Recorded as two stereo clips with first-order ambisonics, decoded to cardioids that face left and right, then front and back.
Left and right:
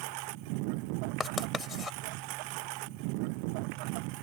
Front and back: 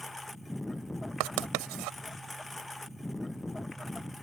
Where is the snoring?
No snoring in this recording.